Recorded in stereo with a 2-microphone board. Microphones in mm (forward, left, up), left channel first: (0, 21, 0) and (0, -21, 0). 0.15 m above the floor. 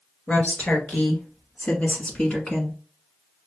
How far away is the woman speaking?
About 2 m.